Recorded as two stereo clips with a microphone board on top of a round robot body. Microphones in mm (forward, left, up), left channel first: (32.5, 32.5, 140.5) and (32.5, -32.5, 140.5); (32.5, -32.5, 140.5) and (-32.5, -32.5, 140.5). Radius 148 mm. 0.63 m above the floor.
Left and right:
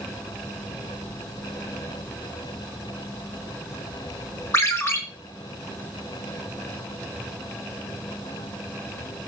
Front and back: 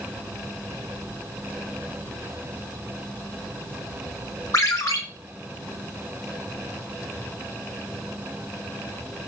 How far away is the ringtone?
About 2.0 m.